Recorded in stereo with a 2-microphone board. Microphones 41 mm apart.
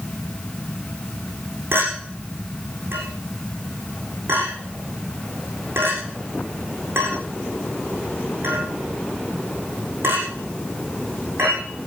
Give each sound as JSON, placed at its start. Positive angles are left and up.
{"t": 1.7, "sound": "a clink", "side_deg": -75, "distance_m": 8.5}